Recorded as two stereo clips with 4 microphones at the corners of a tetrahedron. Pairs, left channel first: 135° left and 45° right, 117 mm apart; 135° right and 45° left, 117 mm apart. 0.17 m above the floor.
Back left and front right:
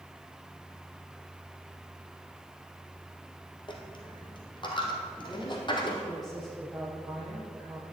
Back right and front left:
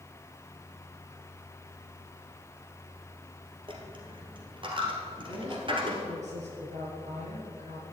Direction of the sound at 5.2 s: 45° left.